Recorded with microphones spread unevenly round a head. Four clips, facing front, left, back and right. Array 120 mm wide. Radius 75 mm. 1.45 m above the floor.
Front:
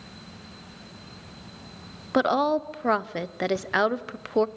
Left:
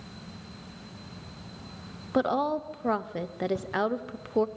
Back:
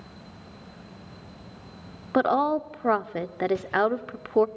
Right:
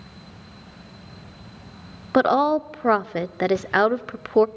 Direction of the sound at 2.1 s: 55° right.